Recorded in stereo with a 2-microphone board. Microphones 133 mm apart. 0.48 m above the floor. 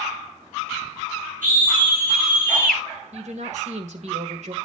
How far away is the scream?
About 7 m.